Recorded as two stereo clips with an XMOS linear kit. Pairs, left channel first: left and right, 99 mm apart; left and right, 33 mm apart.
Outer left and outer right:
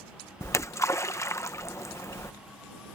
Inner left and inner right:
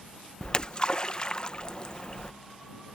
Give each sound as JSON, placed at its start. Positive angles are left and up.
{"t": 0.4, "sound": "a splash", "side_deg": 30}